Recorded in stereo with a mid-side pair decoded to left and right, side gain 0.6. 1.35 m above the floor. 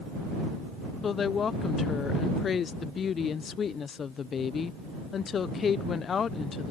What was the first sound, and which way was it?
A woman speaking, 40° left.